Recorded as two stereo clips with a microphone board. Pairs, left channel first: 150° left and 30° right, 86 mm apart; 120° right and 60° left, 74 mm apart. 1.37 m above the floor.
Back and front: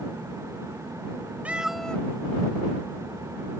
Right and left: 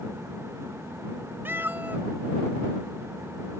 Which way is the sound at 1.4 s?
30° left.